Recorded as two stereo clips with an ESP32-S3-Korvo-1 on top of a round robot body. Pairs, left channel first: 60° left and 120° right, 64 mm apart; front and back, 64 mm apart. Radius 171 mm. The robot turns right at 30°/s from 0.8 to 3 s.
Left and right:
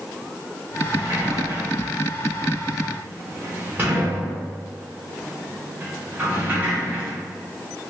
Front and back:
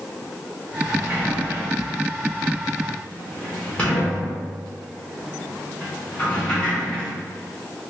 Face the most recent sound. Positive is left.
turn(degrees=-70)